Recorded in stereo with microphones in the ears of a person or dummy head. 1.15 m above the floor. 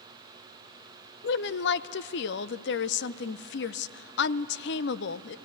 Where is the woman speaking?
50° left (ahead or behind), 0.5 m.